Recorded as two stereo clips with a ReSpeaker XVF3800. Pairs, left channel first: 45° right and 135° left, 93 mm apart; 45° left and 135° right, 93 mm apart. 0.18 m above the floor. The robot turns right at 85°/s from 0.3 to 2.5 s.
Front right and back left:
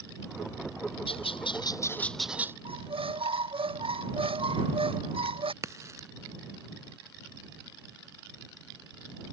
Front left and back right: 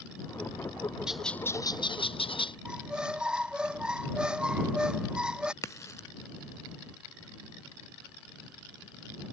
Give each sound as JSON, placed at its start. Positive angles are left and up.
{"t": 1.1, "sound": "a bird", "azimuth_deg": -55}
{"t": 2.6, "sound": "a squeak", "azimuth_deg": 145}
{"t": 5.6, "sound": "a crack", "azimuth_deg": 90}